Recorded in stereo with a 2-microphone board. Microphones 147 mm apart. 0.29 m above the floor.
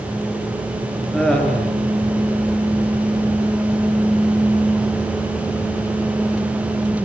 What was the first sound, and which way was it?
Laughter, 5° left (ahead or behind).